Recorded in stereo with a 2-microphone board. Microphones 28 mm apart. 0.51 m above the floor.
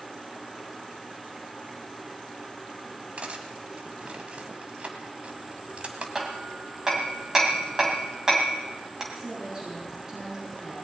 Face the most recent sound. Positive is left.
turn(degrees=-20)  # may be behind; listen again after turning